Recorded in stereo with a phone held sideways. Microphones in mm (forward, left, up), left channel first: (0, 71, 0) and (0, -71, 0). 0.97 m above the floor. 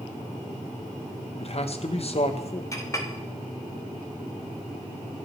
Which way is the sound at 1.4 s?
50° left (ahead or behind).